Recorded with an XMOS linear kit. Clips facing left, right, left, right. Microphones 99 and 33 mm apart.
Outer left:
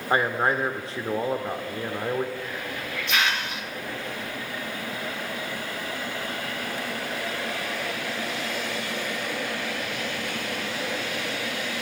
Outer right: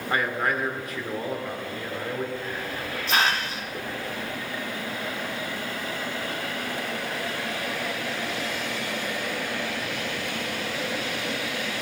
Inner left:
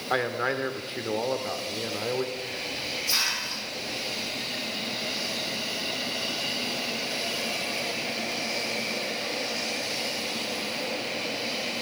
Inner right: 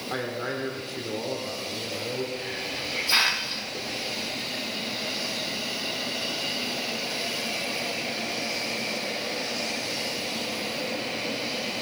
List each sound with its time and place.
0.1 s a man speaking: 30° left (ahead or behind), 1.5 m
2.4 s a hiss: 35° right (ahead or behind), 1.2 m